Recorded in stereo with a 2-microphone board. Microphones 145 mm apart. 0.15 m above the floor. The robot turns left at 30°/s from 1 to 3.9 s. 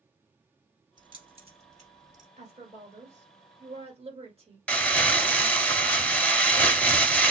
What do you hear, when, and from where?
1.0 s keys jangling: 35° right (ahead or behind), 1.7 m; by 2.3 s 60° right (ahead or behind), 1.7 m
2.4 s a woman speaking: 70° right, 1.6 m; by 4.6 s 115° right, 1.6 m
4.7 s crumpling: 10° left (ahead or behind), 0.5 m